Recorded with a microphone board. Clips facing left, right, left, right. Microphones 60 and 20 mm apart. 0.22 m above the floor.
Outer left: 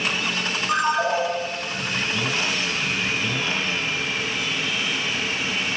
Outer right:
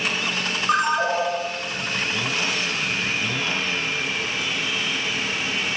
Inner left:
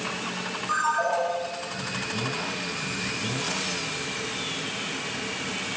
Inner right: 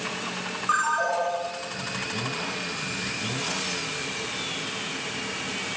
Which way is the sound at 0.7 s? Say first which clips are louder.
Outer right 1 dB, inner right 1 dB; 40° right (ahead or behind).